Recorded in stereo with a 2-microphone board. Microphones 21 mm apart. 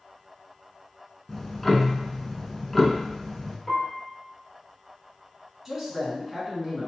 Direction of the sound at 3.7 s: Centre (ahead or behind).